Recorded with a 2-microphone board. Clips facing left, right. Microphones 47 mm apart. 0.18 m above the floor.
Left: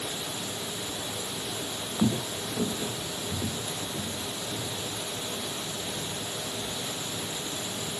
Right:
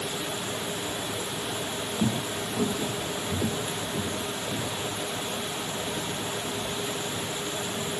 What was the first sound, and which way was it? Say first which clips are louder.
Footsteps: left 2 dB; 15° left (ahead or behind).